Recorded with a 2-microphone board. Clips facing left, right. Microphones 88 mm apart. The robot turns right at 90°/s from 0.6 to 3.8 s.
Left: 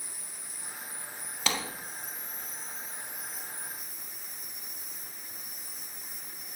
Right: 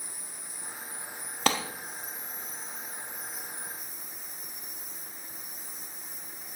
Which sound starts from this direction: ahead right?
An insect, at 0.0 s.